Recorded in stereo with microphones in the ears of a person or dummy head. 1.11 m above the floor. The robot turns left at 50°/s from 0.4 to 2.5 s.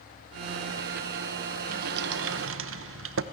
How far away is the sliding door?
About 1.0 m.